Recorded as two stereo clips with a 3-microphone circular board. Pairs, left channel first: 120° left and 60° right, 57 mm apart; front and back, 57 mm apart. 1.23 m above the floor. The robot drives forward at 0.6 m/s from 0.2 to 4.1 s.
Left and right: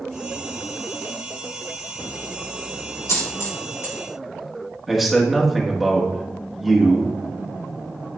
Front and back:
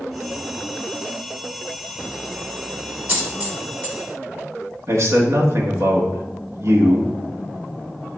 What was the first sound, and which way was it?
A dropped coin, 120° left.